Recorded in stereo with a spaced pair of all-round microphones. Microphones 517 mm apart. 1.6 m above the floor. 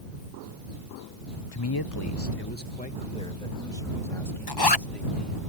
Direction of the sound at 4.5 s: 45° left (ahead or behind).